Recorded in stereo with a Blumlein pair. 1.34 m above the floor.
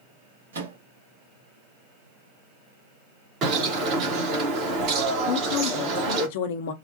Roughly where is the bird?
Ahead right.